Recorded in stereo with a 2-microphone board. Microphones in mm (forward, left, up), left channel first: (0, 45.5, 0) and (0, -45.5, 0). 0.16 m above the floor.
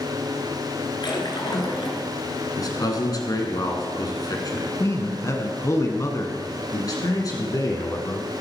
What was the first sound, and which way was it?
A splash, 55° left (ahead or behind).